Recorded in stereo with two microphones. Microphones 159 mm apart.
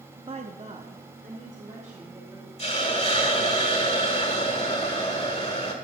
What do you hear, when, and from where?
0.3 s a woman speaking: 35° right (ahead or behind), 0.6 m; by 2.5 s 50° right (ahead or behind), 3 m
2.6 s a hiss: 40° left (ahead or behind), 1.6 m